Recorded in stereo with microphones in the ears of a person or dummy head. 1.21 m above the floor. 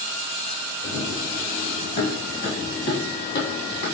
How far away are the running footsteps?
About 1.6 m.